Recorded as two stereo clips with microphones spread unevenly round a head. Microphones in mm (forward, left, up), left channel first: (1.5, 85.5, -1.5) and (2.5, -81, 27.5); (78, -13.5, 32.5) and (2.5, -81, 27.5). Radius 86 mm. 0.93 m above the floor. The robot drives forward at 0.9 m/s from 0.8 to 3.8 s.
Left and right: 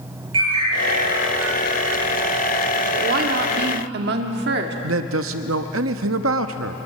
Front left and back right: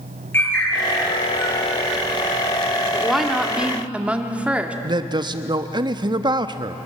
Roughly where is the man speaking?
Right.